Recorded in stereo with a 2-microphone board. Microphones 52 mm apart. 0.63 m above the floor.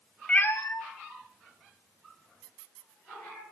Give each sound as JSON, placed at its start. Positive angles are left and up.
{"t": 0.3, "sound": "a cat meowing", "side_deg": 25, "distance_m": 0.6}